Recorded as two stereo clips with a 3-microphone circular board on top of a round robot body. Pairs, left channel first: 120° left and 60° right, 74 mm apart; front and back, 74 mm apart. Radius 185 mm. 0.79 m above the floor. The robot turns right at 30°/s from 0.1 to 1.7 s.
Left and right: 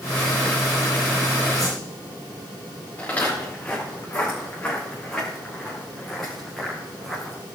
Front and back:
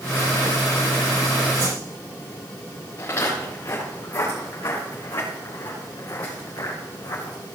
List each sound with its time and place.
1.6 s a whoosh: 155° right, 8.5 m; by 1.8 s 150° right, 8.5 m
3.0 s footsteps: 50° left, 6.5 m; by 7.4 s 30° left, 5 m